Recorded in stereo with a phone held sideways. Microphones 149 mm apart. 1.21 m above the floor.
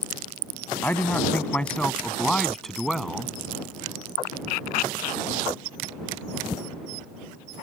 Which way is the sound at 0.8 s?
10° left (ahead or behind).